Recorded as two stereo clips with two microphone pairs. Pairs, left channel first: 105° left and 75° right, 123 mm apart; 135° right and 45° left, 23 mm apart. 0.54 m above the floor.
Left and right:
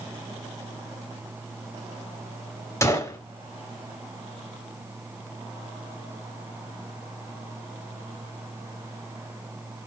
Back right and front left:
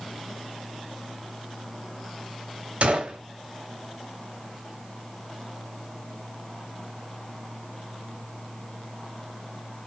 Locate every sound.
2.8 s a gunshot: 40° left, 1.0 m